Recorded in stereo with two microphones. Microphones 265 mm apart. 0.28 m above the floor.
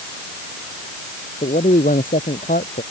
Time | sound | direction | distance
1.4 | a man speaking | 30° left (ahead or behind) | ?